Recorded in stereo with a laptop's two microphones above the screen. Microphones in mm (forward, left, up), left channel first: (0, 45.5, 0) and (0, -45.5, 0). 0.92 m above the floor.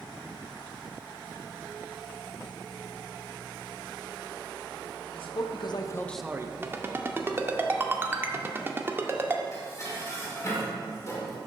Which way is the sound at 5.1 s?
70° left (ahead or behind).